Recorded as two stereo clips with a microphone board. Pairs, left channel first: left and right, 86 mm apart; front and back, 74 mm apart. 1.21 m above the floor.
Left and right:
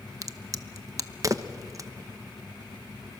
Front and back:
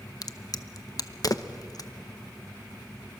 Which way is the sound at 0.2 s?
40° right.